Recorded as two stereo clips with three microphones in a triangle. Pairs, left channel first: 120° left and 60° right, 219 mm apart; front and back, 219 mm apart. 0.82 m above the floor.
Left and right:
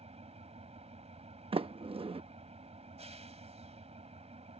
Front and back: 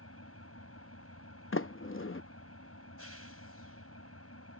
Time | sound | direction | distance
0.0 | an engine running | 5° left | ?
1.5 | a sliding door | 5° left | ?